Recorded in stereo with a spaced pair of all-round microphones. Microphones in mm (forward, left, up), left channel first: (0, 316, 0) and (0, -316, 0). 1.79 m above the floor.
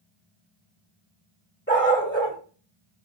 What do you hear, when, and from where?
1.7 s a dog barking: 15° left (ahead or behind), 1.5 m